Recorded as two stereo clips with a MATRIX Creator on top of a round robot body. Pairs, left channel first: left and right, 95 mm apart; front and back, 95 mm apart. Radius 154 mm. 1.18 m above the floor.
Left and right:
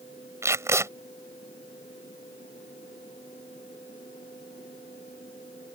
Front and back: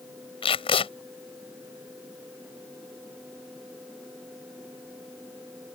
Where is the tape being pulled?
30° right.